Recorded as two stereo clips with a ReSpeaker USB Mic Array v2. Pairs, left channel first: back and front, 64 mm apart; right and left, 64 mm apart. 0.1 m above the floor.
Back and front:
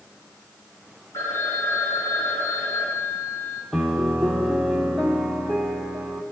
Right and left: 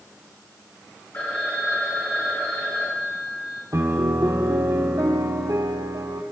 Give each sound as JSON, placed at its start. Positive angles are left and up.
{"t": 1.1, "sound": "a phone ringing", "azimuth_deg": -150, "distance_m": 4.0}
{"t": 3.7, "sound": "a piano", "azimuth_deg": 95, "distance_m": 2.0}